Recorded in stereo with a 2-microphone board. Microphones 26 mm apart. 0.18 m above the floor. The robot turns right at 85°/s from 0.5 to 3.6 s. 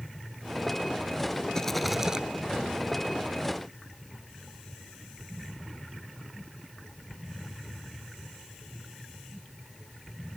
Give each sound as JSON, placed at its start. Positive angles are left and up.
{"t": 1.6, "sound": "a rattle", "azimuth_deg": 155}